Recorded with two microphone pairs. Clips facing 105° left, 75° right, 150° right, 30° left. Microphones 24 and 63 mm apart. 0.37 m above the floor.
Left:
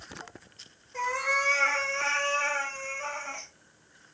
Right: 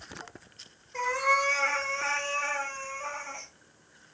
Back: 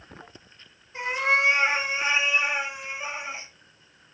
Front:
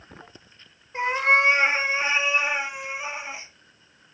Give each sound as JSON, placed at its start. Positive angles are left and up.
{"t": 0.9, "sound": "a cat meowing", "azimuth_deg": -5, "distance_m": 0.8}